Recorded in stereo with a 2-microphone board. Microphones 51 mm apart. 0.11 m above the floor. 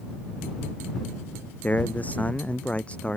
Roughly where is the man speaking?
Left.